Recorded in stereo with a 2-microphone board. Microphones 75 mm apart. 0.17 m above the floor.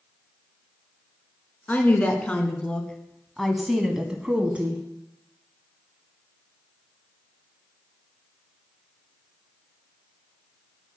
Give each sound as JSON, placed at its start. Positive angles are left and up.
{"t": 1.7, "sound": "a woman speaking", "side_deg": 25, "distance_m": 1.7}